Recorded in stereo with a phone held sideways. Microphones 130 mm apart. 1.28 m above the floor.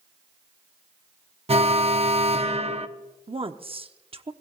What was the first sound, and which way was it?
An alarm, 50° right (ahead or behind).